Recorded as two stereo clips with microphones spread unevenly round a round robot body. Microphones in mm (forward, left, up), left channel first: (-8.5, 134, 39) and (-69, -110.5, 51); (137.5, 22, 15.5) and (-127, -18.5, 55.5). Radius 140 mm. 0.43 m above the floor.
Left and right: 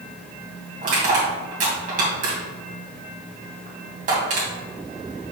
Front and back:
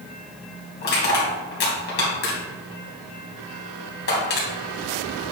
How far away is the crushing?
About 2.5 m.